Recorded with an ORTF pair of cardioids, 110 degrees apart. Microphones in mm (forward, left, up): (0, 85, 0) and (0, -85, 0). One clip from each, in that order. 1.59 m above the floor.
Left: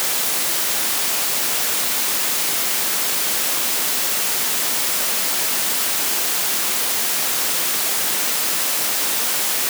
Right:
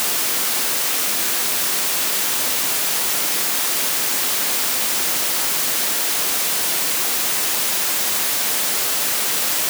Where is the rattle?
I don't hear a rattle.